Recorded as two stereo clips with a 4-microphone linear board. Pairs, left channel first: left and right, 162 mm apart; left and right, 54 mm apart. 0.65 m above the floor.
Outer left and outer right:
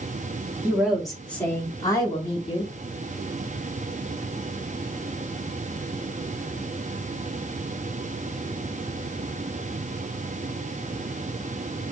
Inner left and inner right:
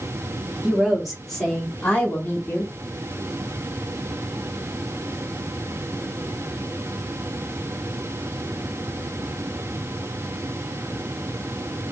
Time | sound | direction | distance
0.6 | a woman speaking | 10° right (ahead or behind) | 1.7 m